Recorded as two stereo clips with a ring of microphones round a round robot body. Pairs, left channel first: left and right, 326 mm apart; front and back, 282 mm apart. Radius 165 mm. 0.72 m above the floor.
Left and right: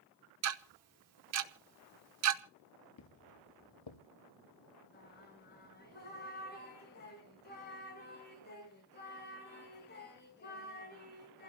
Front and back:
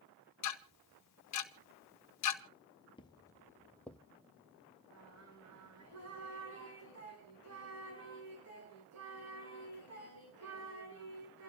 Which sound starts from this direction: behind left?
Singing, at 4.9 s.